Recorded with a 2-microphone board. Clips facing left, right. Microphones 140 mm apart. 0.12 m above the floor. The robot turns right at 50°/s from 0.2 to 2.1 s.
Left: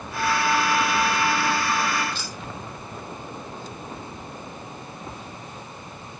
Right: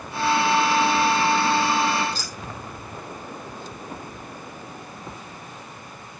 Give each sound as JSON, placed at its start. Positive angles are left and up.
{"t": 2.1, "sound": "keys jangling", "side_deg": -35, "distance_m": 3.0}